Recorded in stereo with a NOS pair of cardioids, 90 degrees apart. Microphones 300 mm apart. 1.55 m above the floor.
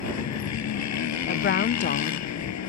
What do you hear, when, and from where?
0.0 s a motorcycle: 65° left
1.3 s a woman speaking: 40° left